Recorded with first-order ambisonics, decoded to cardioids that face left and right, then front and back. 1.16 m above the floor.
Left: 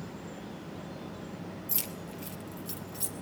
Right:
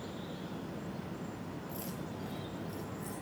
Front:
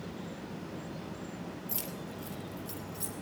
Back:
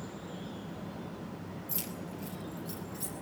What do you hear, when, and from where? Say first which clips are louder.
1.7 s keys jangling: left 3 dB, back 2 dB; 85° left, 2.5 m; by 3.1 s 80° left, 3 m